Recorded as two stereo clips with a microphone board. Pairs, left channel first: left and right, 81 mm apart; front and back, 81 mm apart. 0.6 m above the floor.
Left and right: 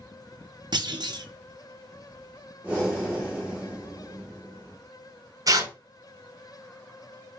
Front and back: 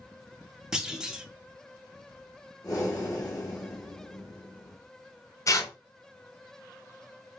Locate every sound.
0.7 s a clunk: 100° right, 0.6 m
2.6 s breathing: 20° right, 1.7 m
5.5 s tearing paper: 45° right, 0.5 m